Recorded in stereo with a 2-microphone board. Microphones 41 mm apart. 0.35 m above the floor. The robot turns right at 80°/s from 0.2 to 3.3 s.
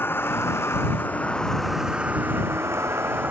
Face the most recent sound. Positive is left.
turn(degrees=-50)